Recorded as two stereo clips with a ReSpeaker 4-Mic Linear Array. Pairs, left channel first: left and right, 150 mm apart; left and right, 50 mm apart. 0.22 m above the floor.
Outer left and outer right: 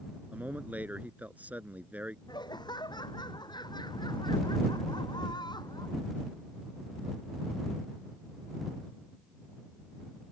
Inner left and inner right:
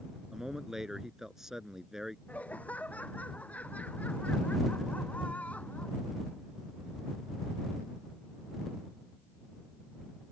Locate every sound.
0.3 s a man speaking: 10° right (ahead or behind)
2.3 s laughter: 25° left (ahead or behind)